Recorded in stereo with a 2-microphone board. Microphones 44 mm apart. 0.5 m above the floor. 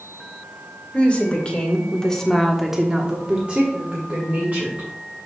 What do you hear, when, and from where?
0.9 s a woman speaking: 30° left (ahead or behind), 2 m; by 4.9 s 40° right (ahead or behind), 2.5 m